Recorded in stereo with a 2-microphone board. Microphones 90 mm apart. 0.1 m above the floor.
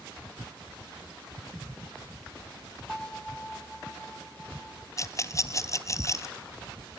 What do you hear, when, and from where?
2.9 s a bell: 5° left (ahead or behind), 1.1 m
5.0 s a rattle: 35° left (ahead or behind), 0.8 m